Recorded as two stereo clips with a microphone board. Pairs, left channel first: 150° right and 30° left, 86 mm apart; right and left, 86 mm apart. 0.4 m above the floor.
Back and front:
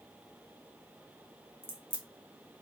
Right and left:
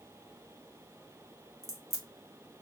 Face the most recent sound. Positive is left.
turn(degrees=-30)